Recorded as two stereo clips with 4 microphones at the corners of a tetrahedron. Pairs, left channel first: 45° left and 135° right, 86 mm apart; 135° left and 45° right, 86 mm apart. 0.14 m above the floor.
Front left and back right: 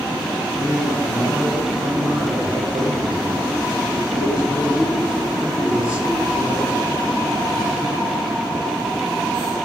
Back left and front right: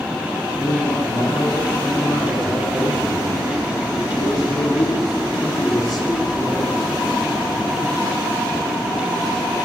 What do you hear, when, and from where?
0.6 s a man speaking: 95° left, 6.5 m